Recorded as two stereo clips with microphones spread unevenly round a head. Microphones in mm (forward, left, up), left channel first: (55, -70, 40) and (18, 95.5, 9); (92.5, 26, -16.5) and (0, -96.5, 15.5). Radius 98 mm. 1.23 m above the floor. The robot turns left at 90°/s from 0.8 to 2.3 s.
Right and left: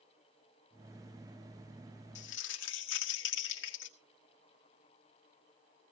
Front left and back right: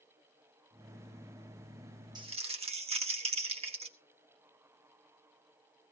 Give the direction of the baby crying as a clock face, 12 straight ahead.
No baby crying in this recording.